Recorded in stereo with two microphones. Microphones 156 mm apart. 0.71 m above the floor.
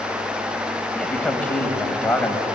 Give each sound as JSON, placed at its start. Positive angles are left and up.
{"t": 0.9, "sound": "a man speaking", "side_deg": 10, "distance_m": 4.0}